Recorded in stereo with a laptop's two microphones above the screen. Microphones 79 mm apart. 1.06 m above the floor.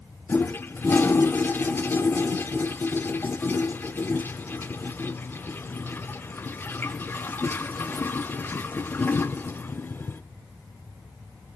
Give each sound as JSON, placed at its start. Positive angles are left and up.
{"t": 0.3, "sound": "a toilet flushing", "side_deg": 25, "distance_m": 0.5}